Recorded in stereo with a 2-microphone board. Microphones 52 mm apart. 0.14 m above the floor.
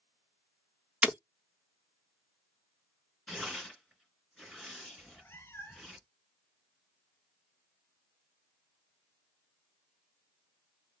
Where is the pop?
No pop in this recording.